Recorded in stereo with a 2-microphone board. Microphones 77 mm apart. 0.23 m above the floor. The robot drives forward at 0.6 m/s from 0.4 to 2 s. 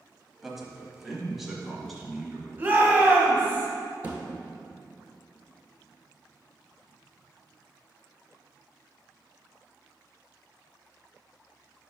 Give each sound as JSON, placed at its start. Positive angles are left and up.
{"t": 0.4, "sound": "a man speaking", "side_deg": -5, "distance_m": 1.0}
{"t": 2.6, "sound": "a shout", "side_deg": -25, "distance_m": 1.1}
{"t": 4.0, "sound": "a thud", "side_deg": -20, "distance_m": 1.2}